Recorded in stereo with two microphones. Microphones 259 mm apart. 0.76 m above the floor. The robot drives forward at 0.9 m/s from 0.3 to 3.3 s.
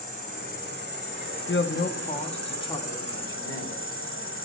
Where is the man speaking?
50° left (ahead or behind), 0.5 m; by 3.8 s 15° left (ahead or behind), 1.8 m.